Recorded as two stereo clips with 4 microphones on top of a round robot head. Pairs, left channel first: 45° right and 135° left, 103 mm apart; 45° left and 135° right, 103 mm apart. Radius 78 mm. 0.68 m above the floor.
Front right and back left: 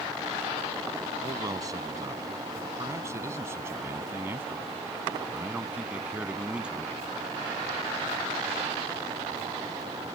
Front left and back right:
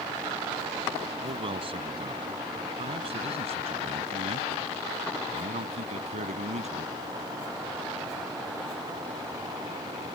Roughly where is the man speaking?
Behind.